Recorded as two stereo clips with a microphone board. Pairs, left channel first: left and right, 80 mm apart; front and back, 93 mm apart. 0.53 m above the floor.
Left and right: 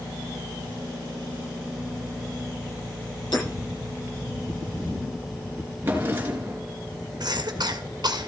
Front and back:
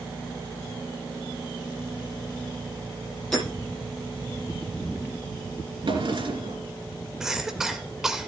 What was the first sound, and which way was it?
Hammering, 85° left.